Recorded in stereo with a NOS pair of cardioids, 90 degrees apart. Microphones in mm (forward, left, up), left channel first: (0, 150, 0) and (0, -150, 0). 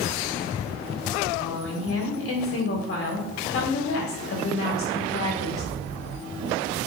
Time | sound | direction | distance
1.4 | a woman speaking | 50° left | 2 m